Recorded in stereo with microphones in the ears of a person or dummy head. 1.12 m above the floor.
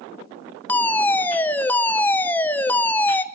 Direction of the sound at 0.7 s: 5° left (ahead or behind).